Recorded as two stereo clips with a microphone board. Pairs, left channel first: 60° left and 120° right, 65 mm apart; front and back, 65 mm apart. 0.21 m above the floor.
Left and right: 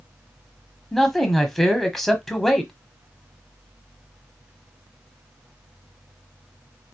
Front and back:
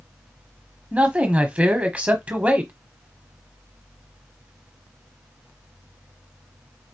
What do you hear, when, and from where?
0.9 s a man speaking: 140° left, 1.0 m